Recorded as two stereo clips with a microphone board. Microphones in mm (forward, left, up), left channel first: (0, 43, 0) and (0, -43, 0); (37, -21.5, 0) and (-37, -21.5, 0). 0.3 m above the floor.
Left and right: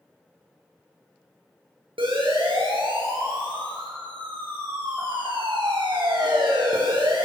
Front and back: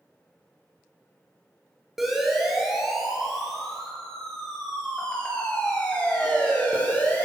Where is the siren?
90° right, 7.5 m; by 7.2 s 70° right, 8.5 m.